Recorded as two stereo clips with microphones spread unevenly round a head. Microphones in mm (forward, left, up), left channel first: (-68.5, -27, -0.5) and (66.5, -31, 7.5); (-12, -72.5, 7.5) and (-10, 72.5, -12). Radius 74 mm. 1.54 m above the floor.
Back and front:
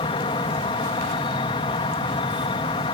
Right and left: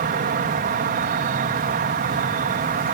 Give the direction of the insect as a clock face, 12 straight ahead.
8 o'clock.